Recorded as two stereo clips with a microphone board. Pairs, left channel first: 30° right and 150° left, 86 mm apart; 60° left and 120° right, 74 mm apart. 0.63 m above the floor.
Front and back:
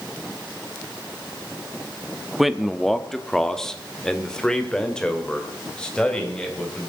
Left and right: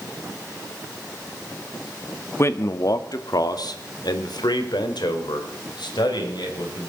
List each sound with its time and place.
2.4 s a man speaking: 65° left, 0.8 m; by 6.9 s 50° left, 3.5 m